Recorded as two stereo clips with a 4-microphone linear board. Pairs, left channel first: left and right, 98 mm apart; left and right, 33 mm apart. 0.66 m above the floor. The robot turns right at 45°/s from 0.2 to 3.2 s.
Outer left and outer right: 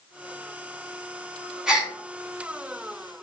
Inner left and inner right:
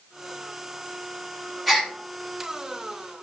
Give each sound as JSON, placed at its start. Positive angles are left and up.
{"t": 1.7, "sound": "a gasp", "side_deg": -5, "distance_m": 0.9}